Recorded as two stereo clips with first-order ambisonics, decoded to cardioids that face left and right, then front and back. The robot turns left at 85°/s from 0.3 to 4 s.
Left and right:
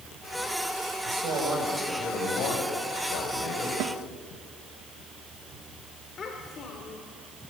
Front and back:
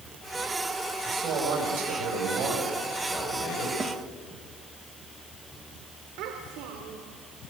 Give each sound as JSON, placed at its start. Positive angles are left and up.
{"t": 1.0, "sound": "a man speaking", "azimuth_deg": -110, "distance_m": 8.0}
{"t": 3.8, "sound": "a snare drum", "azimuth_deg": -100, "distance_m": 1.6}
{"t": 6.2, "sound": "a child speaking", "azimuth_deg": 155, "distance_m": 3.0}